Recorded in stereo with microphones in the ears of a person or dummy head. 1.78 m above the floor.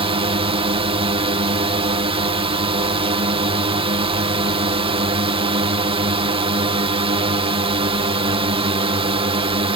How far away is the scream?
No scream in this recording.